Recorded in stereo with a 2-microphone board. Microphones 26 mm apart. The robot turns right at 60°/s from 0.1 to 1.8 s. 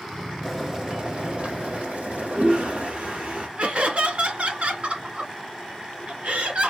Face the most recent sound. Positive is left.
turn(degrees=-55)  # may be behind; listen again after turning